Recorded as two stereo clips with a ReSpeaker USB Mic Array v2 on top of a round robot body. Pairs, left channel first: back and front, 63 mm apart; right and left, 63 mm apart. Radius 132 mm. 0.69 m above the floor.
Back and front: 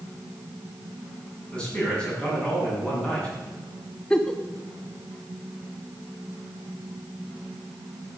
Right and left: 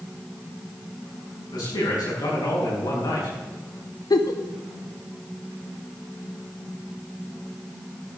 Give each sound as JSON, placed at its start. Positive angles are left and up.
{"t": 1.5, "sound": "a man speaking", "azimuth_deg": -105, "distance_m": 6.5}
{"t": 4.1, "sound": "a giggle", "azimuth_deg": -100, "distance_m": 0.9}